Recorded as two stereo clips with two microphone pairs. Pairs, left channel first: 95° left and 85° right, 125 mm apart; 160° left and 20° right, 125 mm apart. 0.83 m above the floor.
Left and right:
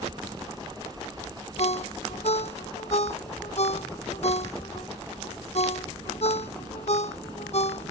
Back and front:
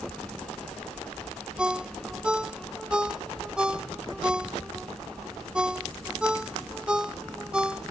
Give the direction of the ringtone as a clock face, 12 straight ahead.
10 o'clock.